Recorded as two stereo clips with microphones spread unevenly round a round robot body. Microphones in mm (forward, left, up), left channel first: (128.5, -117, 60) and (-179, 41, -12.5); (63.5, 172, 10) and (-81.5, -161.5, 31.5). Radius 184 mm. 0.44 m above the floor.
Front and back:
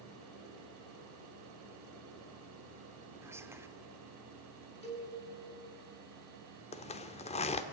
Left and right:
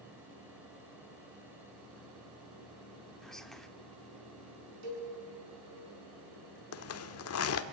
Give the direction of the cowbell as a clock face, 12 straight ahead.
3 o'clock.